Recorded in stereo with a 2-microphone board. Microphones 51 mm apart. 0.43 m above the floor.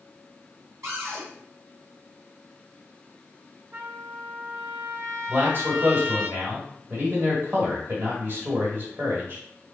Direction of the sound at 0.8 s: 65° right (ahead or behind).